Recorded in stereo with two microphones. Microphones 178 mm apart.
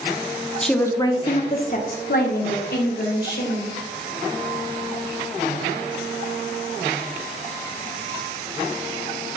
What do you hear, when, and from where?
0.6 s a woman speaking: centre (ahead or behind), 0.8 m; by 3.8 s 60° left (ahead or behind), 2 m